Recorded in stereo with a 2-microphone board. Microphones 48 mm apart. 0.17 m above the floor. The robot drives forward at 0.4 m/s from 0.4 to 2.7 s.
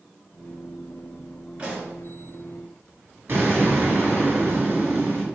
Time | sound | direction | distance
1.6 | a pop | 20° right (ahead or behind) | 1.7 m
3.3 | an explosion | 45° right (ahead or behind) | 1.6 m